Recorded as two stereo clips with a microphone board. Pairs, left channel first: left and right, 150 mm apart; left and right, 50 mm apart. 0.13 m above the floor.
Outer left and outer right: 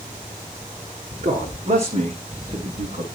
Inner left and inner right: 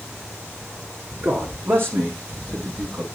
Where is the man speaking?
45° right (ahead or behind), 8.5 m.